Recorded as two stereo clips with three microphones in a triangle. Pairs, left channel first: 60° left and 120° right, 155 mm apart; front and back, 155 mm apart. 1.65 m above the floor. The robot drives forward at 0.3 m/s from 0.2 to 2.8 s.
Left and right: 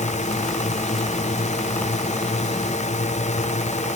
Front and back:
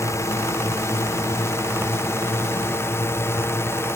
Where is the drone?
65° left; by 4.0 s 70° left.